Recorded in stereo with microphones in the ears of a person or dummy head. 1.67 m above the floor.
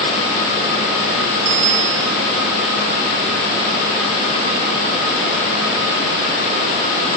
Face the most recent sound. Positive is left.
turn(degrees=-65)  # may be behind; listen again after turning